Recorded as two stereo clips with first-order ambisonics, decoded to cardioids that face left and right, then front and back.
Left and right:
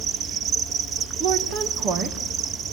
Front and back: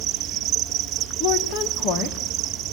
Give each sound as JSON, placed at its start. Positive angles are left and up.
{"t": 0.0, "sound": "an insect", "azimuth_deg": -140, "distance_m": 0.9}
{"t": 1.2, "sound": "a woman speaking", "azimuth_deg": -35, "distance_m": 2.5}